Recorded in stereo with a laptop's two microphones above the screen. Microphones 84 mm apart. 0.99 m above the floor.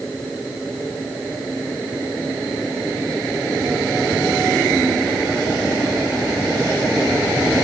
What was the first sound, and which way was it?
Only background noise.